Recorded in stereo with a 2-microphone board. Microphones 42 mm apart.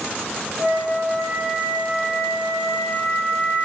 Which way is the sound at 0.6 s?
45° right (ahead or behind).